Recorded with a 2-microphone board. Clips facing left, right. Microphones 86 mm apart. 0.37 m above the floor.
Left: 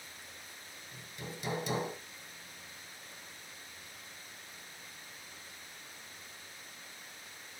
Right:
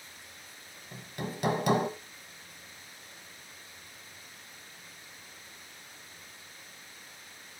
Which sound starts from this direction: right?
Hammering, at 0.9 s.